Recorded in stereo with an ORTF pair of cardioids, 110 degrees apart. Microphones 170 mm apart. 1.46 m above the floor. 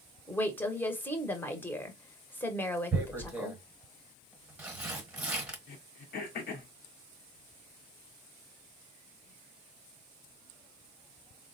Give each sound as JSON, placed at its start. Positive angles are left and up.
{"t": 0.3, "sound": "a woman speaking", "azimuth_deg": 10, "distance_m": 1.0}
{"t": 2.9, "sound": "tearing paper", "azimuth_deg": -10, "distance_m": 1.1}
{"t": 5.7, "sound": "throat clearing", "azimuth_deg": 65, "distance_m": 1.0}